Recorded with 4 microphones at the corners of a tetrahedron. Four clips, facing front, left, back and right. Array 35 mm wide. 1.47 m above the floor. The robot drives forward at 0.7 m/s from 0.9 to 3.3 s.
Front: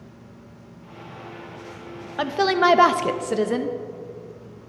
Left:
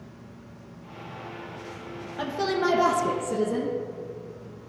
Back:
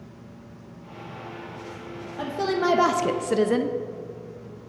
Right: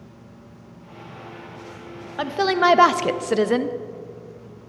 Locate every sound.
2.2 s a woman speaking: 30° right, 0.9 m; by 3.8 s 95° right, 0.5 m